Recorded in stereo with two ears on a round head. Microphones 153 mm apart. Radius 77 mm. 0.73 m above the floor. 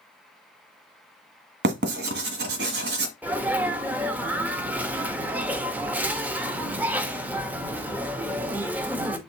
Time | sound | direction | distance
1.6 | writing | 65° right (ahead or behind) | 1.5 m
3.2 | a sneeze | 10° right (ahead or behind) | 1.1 m